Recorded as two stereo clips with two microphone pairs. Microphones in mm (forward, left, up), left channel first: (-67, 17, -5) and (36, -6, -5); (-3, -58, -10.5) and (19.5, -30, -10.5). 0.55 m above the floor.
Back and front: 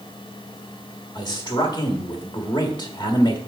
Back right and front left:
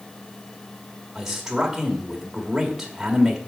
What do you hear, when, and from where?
1.1 s a man speaking: 130° left, 1.5 m